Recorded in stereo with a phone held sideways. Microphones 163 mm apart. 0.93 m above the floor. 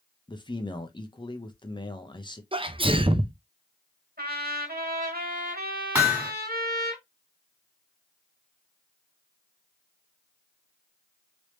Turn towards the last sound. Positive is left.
turn(degrees=-15)  # may be behind; listen again after turning